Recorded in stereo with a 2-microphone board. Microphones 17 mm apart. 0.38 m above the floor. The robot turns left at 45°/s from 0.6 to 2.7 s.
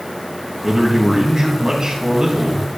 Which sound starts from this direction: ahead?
A man speaking, at 0.6 s.